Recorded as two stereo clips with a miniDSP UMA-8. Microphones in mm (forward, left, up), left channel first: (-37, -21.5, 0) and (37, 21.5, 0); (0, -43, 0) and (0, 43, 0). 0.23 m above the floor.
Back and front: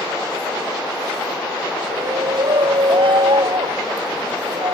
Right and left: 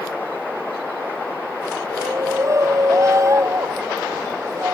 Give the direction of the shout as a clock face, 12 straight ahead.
11 o'clock.